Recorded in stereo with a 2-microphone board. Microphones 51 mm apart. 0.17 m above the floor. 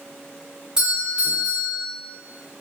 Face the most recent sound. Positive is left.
turn(degrees=-15)  # may be behind; listen again after turning